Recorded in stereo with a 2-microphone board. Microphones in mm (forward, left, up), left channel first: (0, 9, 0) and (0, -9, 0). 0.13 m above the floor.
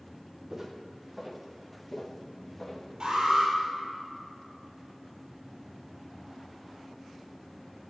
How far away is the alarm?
About 5.5 m.